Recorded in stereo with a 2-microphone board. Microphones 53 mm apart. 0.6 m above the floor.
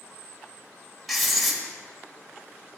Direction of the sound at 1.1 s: Centre (ahead or behind).